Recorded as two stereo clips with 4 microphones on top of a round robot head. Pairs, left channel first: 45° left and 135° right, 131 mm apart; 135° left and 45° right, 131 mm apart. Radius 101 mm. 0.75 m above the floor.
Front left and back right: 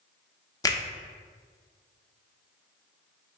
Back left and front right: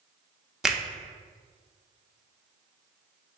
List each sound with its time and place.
0.6 s a finger snap: 35° left, 0.7 m